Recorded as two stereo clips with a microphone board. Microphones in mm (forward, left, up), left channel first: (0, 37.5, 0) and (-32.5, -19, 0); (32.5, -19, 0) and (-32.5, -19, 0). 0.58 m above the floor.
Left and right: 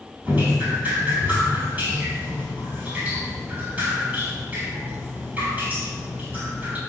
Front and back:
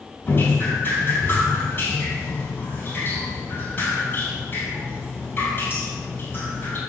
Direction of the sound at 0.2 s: 60° right.